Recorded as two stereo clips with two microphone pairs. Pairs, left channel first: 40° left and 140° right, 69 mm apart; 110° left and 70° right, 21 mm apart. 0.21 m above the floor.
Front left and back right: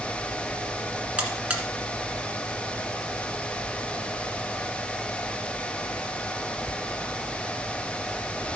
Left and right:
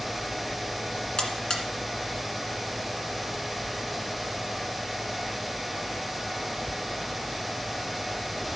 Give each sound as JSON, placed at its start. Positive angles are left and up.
{"t": 1.2, "sound": "a buzzer", "azimuth_deg": 155, "distance_m": 1.6}